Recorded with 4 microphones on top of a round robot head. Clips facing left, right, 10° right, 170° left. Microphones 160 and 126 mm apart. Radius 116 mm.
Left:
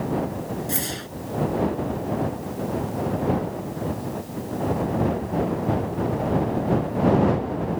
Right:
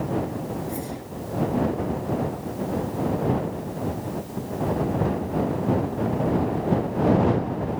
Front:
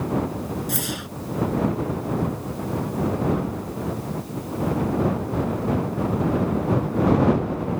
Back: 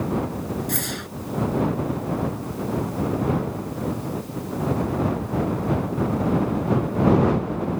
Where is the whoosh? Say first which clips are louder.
Left 1 dB, even; 75° left.